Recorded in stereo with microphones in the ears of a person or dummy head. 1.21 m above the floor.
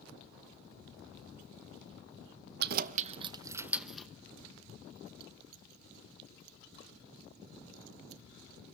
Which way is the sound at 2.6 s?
60° right (ahead or behind).